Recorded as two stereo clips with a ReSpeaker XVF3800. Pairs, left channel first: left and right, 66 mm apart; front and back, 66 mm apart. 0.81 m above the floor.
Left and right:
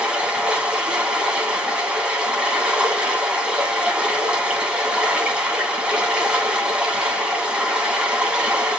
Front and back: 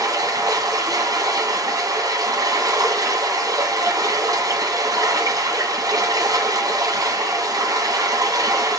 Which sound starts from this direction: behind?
Running water, at 0.0 s.